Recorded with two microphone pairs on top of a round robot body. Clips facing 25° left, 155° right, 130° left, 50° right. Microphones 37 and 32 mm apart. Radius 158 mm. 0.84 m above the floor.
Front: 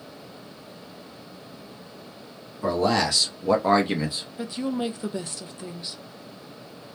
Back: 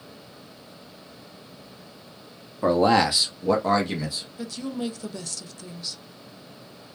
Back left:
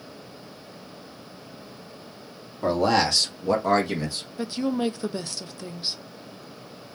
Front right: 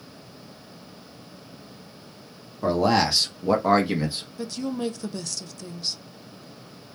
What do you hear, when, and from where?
2.6 s a man speaking: 155° right, 1.2 m; by 4.2 s 25° left, 1.1 m
4.4 s a woman speaking: 85° left, 0.6 m